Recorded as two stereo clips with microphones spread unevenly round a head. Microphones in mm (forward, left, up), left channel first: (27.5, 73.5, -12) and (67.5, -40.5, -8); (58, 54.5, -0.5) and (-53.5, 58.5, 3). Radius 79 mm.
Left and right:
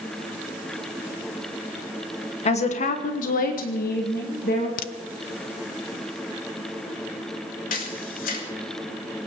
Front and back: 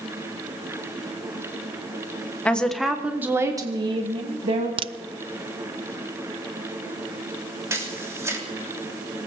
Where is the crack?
135° left, 0.5 m.